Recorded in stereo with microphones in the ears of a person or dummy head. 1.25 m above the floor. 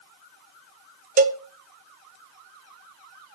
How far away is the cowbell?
About 0.6 m.